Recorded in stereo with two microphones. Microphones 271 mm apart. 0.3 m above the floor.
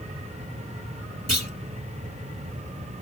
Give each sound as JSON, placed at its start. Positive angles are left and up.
{"t": 1.3, "sound": "a clunk", "side_deg": -70, "distance_m": 1.7}